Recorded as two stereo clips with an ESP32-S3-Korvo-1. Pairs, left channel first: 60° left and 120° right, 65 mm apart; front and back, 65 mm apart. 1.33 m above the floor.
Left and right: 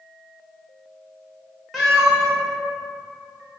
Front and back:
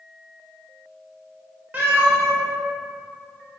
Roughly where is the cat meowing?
Behind left.